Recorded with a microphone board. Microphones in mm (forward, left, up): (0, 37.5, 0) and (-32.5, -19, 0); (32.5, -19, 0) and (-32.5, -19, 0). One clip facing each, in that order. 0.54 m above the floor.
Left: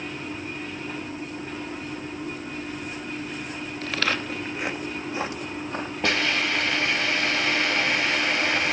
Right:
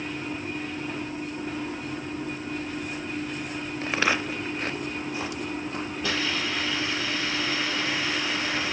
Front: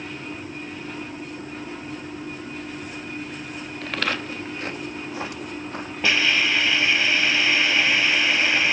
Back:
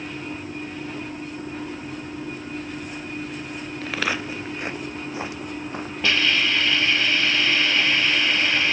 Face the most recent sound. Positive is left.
turn(degrees=80)